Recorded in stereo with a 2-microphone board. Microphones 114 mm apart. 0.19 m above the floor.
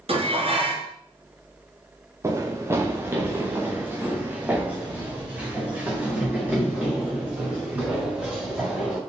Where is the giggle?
I don't hear a giggle.